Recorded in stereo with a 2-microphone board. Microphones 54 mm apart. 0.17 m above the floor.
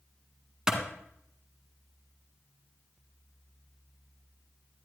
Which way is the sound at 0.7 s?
15° right (ahead or behind).